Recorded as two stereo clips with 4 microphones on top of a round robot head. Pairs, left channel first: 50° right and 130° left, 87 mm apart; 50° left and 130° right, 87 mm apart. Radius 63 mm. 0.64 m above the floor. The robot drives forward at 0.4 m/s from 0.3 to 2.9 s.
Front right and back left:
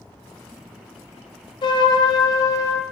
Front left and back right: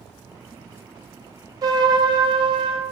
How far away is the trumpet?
About 1.5 m.